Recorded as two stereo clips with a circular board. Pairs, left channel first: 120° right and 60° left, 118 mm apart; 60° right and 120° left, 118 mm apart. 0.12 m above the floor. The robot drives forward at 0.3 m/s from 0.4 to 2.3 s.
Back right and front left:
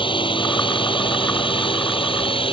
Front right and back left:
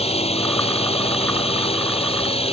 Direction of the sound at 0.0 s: 80° right.